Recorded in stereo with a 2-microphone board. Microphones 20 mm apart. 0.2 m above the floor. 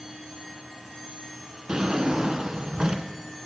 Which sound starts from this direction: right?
A drawer, at 1.7 s.